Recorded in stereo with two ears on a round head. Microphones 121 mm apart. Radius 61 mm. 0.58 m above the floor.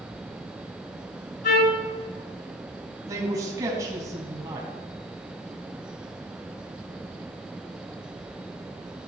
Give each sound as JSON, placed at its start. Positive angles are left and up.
{"t": 1.4, "sound": "a trumpet", "side_deg": 70, "distance_m": 5.5}
{"t": 3.1, "sound": "a man speaking", "side_deg": -25, "distance_m": 3.5}